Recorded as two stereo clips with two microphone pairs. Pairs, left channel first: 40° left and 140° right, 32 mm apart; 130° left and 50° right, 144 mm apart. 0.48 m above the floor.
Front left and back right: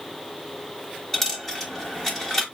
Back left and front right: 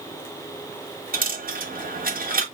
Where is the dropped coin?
40° right, 1.0 m.